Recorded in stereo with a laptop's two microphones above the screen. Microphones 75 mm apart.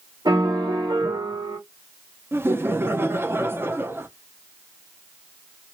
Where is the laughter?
30° right (ahead or behind), 0.6 m.